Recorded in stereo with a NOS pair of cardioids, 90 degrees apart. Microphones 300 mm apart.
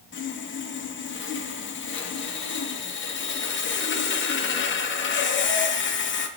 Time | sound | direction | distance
0.1 | sawing | 40° left | 1.0 m